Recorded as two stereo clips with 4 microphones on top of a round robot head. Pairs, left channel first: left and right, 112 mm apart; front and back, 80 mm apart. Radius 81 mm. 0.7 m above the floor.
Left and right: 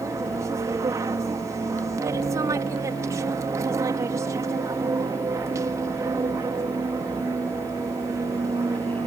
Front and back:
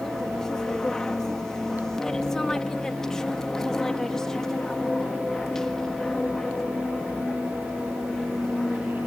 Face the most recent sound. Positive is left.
turn(degrees=-80)